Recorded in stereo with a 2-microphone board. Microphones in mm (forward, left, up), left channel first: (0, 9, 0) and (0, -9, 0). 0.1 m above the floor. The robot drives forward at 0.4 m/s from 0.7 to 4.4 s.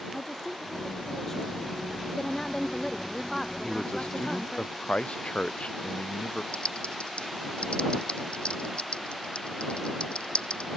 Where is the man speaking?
80° left.